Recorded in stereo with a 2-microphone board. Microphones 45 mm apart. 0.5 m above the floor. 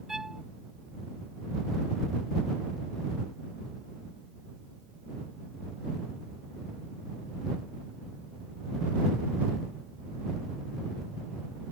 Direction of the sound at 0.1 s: 10° right (ahead or behind).